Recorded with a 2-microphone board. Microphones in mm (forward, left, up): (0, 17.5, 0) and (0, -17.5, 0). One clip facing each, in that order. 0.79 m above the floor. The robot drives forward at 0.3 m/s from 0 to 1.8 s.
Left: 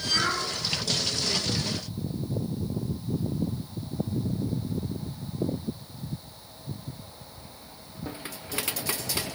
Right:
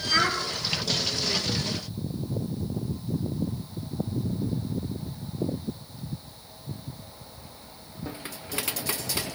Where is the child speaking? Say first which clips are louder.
Right 3 dB; 40° right (ahead or behind), 7 m.